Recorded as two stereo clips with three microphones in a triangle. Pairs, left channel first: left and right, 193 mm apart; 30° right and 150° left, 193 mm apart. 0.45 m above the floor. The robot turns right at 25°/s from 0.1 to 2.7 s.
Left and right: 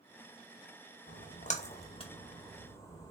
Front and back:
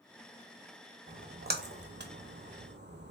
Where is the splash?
120° left, 0.5 m; by 3.1 s 165° left, 0.5 m.